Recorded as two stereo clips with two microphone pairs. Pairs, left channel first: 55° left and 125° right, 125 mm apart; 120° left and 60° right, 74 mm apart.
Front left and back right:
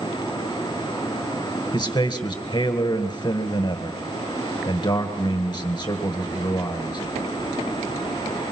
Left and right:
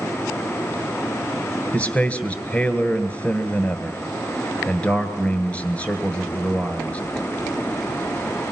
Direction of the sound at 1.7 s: 60° left.